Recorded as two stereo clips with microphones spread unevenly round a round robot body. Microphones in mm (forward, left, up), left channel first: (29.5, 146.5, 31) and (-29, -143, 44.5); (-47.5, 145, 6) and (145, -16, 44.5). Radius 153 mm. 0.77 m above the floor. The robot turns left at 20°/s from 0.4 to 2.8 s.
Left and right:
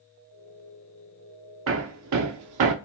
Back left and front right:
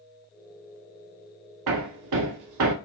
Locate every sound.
1.7 s hammering: 55° right, 0.6 m; by 2.8 s 75° right, 0.6 m